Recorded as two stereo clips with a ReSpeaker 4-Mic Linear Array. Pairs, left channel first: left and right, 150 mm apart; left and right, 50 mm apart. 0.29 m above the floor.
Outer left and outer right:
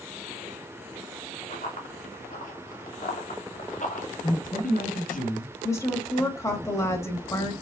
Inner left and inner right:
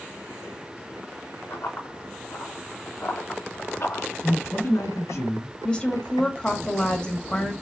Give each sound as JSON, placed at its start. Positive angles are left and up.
{"t": 1.5, "sound": "running footsteps", "side_deg": 55, "distance_m": 3.0}
{"t": 4.2, "sound": "a man speaking", "side_deg": 70, "distance_m": 2.5}
{"t": 5.6, "sound": "a woman speaking", "side_deg": 20, "distance_m": 1.4}